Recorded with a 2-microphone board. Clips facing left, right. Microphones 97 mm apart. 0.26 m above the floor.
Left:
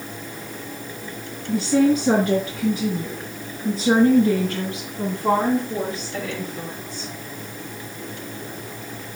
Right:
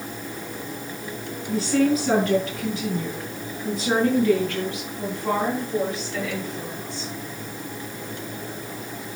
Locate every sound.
1.5 s a woman speaking: 5° left (ahead or behind), 8 m; by 7.1 s 40° left (ahead or behind), 4.5 m